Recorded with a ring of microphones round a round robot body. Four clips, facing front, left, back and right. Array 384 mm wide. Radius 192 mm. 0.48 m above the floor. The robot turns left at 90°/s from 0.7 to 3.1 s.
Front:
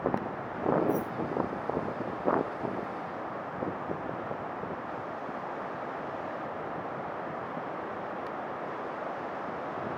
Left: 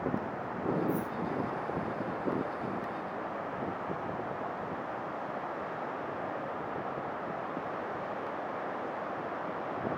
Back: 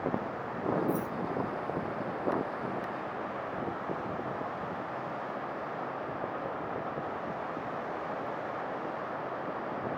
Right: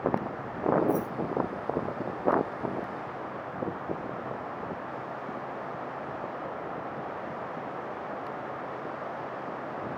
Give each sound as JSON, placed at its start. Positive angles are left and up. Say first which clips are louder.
{"t": 0.9, "sound": "keys jangling", "louder": "right 5 dB, front 2 dB", "azimuth_deg": -145, "distance_m": 2.5}